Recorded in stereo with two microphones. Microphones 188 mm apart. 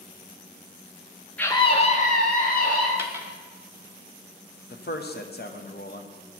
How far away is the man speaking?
About 0.6 m.